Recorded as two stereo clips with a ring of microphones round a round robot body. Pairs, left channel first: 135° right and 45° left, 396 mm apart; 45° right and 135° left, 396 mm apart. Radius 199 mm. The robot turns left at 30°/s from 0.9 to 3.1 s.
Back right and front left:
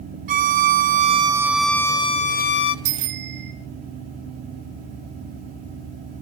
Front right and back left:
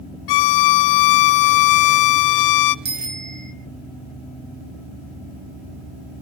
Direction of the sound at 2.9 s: 70° left.